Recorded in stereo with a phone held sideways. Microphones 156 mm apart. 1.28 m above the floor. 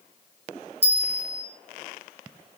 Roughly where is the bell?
Centre.